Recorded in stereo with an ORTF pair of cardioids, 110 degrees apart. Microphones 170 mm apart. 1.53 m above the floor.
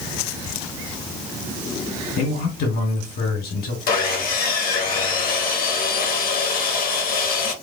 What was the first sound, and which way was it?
A man speaking, 60° left.